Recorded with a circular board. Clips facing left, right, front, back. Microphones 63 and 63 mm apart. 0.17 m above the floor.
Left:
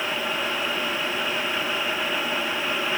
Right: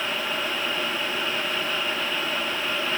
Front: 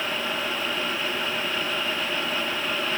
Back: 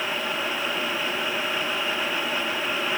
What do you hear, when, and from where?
Only background noise.